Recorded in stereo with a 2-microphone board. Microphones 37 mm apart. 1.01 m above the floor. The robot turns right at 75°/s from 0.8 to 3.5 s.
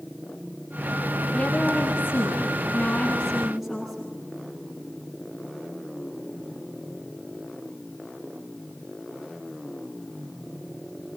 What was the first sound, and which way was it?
A woman speaking, 25° left.